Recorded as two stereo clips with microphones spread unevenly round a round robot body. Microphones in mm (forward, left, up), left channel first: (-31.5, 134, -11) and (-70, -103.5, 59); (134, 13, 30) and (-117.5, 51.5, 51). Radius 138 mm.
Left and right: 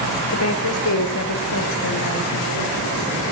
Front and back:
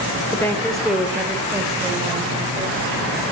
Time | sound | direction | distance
0.3 | a woman speaking | 70° left | 2 m